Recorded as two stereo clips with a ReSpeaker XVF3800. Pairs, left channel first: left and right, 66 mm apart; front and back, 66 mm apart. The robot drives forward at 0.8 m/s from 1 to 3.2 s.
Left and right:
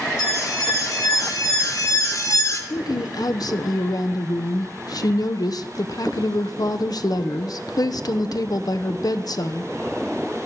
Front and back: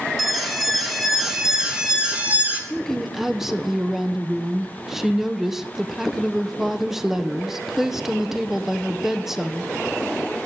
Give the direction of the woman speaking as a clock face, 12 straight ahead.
10 o'clock.